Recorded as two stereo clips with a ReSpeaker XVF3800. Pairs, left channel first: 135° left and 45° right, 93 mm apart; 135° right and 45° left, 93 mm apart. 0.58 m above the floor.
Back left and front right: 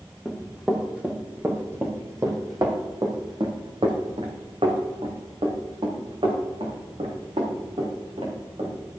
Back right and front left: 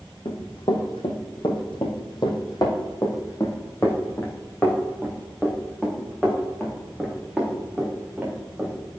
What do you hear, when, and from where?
0.2 s running footsteps: 130° right, 2.0 m; by 8.8 s 35° right, 4 m